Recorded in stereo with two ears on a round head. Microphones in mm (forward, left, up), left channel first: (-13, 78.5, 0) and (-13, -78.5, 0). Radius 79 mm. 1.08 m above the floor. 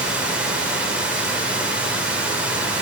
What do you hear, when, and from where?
0.0 s running water: 10° right (ahead or behind), 2 m